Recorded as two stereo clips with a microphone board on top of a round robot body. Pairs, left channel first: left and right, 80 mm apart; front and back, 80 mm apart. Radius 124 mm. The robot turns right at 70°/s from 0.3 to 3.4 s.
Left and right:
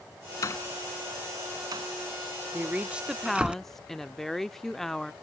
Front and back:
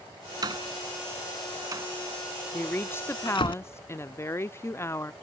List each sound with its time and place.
0.4 s a door slam: 140° left; by 3.5 s 15° right
2.5 s a woman speaking: 55° right; by 5.1 s 10° left